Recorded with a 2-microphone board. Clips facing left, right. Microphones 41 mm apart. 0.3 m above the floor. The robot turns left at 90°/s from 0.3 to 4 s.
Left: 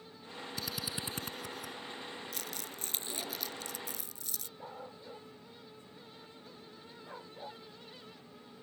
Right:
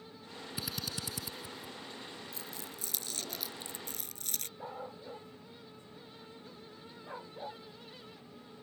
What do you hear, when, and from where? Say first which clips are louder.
0.6 s a drill: even; 15° right (ahead or behind); by 1.8 s 70° left (ahead or behind)
2.3 s crumpling: left 2 dB; 85° left; by 4.5 s 60° right (ahead or behind)
4.6 s a dog barking: right 3 dB; 10° right (ahead or behind)